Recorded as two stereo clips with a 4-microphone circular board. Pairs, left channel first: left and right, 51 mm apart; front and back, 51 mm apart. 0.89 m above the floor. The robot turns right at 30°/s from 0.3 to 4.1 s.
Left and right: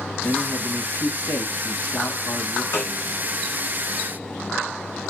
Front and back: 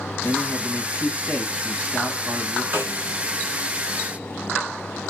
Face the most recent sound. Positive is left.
turn(degrees=170)